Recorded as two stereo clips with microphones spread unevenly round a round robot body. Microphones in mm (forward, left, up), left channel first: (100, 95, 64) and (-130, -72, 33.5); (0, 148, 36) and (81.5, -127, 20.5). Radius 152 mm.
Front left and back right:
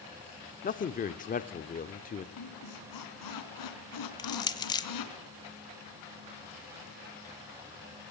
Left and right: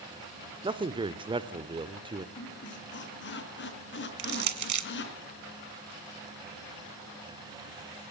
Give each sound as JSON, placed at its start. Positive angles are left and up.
{"t": 0.6, "sound": "a man speaking", "azimuth_deg": -15, "distance_m": 1.0}
{"t": 2.4, "sound": "a squeak", "azimuth_deg": 55, "distance_m": 3.5}
{"t": 4.2, "sound": "crushing", "azimuth_deg": -40, "distance_m": 1.5}